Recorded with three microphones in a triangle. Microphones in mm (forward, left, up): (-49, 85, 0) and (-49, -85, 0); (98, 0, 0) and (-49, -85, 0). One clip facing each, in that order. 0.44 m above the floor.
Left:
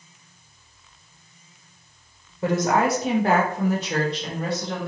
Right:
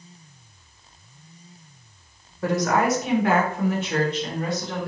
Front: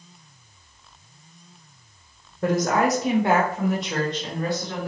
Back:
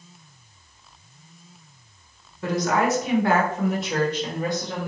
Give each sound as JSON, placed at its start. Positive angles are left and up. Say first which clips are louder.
{"t": 2.4, "sound": "a woman speaking", "louder": "left 1 dB, front 1 dB", "azimuth_deg": 30, "distance_m": 1.3}